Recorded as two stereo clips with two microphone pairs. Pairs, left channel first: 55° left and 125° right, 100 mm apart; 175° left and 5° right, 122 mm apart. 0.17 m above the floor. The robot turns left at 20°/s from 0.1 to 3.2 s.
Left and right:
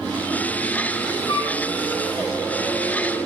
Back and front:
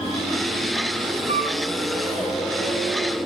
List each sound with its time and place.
1.3 s a flute: 15° left, 4 m; by 1.6 s 10° left, 4 m